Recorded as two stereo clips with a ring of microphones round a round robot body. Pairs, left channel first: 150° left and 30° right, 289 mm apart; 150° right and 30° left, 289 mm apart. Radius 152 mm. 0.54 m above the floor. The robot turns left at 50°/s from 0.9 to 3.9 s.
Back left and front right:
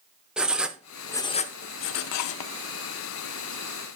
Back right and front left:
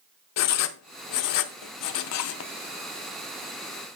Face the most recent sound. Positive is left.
turn(degrees=95)